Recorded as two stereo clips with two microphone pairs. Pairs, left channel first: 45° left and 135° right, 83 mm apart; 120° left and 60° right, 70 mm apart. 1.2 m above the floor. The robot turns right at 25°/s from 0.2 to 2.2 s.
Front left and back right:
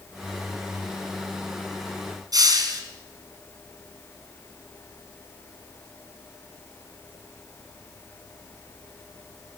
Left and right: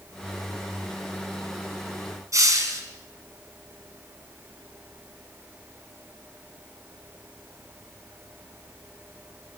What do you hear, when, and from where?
2.3 s a hiss: 100° right, 4.5 m